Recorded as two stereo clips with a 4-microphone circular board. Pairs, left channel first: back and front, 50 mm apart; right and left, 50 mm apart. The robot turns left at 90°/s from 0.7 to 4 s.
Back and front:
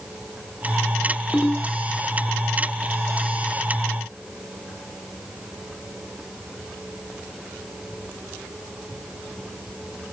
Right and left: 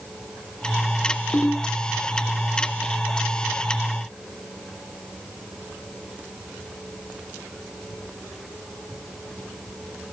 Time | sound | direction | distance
1.3 | a ringtone | 85° right | 0.8 m